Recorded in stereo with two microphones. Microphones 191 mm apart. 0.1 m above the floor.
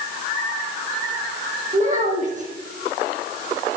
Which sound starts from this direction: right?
A child speaking, at 1.7 s.